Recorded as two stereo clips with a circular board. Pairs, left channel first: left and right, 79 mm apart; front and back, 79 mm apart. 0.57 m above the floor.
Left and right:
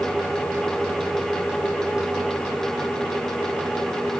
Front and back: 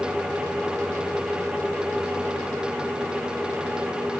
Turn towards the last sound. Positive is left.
No sound to turn to.